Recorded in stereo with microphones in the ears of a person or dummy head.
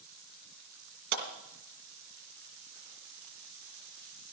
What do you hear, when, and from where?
1.1 s a clap: 60° right (ahead or behind), 3.5 m